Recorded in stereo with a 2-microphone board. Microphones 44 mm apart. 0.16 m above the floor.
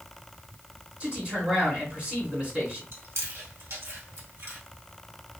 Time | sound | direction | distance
1.0 | a man speaking | 30° right (ahead or behind) | 2.0 m
2.9 | chewing | 65° right (ahead or behind) | 1.4 m